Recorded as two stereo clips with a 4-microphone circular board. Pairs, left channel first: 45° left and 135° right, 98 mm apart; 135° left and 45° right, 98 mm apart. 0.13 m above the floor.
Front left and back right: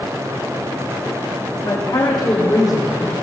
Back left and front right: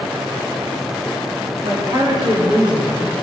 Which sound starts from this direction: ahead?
A woman speaking, at 1.6 s.